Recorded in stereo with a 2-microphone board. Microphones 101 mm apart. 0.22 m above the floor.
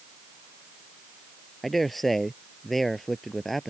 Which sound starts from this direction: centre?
A man speaking, at 1.6 s.